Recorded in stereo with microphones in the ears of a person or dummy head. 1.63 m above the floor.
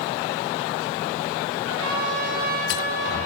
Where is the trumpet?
65° right (ahead or behind), 5 m.